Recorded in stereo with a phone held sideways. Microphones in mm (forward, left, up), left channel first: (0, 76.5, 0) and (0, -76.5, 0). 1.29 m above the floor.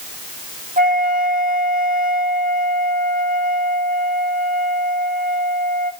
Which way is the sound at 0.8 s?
65° right (ahead or behind).